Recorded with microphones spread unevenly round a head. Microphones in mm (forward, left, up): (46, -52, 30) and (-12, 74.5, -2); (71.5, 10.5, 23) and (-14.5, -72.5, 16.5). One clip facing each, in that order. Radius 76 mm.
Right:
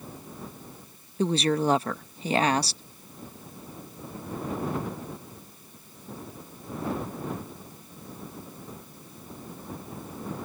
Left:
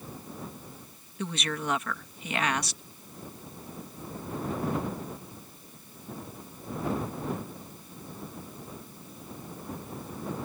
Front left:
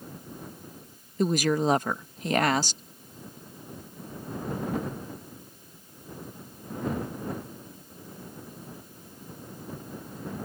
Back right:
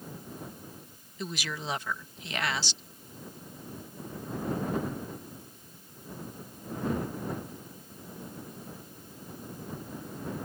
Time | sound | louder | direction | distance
1.2 | a woman speaking | right 10 dB, front left 13 dB | 5° right | ?